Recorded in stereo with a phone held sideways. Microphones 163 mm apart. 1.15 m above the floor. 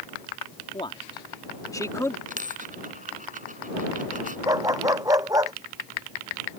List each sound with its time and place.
0.7 s a man speaking: 35° left (ahead or behind); by 2.2 s 15° left (ahead or behind)
2.3 s a dropped coin: 55° right (ahead or behind)
4.5 s a dog barking: 20° right (ahead or behind)